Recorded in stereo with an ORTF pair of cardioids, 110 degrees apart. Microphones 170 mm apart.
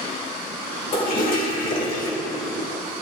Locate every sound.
0.9 s a toilet flushing: 60° left, 3.5 m